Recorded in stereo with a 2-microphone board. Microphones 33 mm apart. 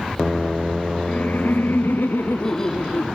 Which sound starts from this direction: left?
Laughter, at 1.1 s.